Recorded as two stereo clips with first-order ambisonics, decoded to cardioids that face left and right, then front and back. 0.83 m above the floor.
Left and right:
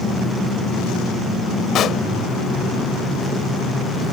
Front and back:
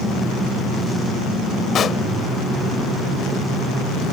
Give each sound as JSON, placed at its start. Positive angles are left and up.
{"t": 1.8, "sound": "a pop", "azimuth_deg": 50}